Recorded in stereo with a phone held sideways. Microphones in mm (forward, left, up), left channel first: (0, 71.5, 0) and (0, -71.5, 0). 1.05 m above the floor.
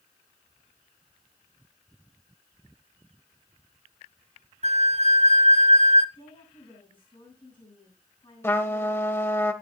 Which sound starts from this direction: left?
A woman speaking, at 6.2 s.